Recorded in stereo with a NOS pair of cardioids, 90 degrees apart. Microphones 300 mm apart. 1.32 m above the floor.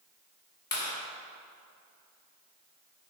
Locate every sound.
0.7 s a clap: 35° left, 3 m